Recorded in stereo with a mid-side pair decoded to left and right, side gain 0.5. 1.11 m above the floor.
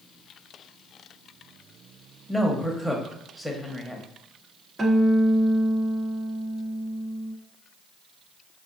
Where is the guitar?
35° right, 0.9 m.